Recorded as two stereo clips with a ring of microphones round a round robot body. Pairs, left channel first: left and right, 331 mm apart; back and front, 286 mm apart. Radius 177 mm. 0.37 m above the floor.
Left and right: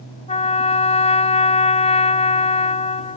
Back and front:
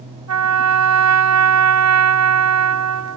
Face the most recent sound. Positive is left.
turn(degrees=20)